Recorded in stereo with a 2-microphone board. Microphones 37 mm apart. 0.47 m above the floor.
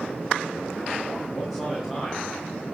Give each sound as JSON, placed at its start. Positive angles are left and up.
{"t": 1.3, "sound": "a man speaking", "side_deg": 5, "distance_m": 4.0}